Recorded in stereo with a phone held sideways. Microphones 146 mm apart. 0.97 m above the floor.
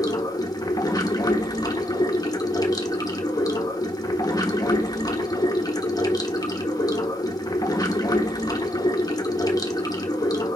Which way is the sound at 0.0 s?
25° left (ahead or behind).